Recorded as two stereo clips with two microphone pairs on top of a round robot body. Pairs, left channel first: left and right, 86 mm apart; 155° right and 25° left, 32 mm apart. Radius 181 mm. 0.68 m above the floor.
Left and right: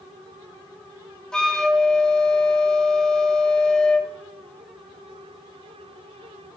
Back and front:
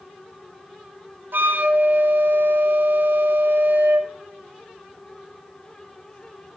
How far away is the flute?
About 0.5 m.